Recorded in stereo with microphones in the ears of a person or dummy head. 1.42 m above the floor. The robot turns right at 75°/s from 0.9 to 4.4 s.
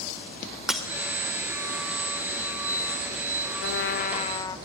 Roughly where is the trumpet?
Left.